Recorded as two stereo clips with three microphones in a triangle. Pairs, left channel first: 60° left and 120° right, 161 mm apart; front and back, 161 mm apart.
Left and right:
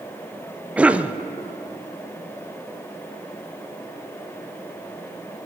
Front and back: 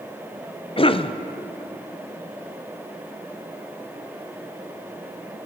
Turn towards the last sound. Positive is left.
turn(degrees=-40)